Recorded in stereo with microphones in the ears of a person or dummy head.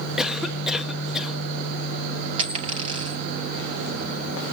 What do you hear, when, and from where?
0.2 s a cough: centre (ahead or behind), 1.2 m
2.4 s a dropped coin: 30° right (ahead or behind), 2 m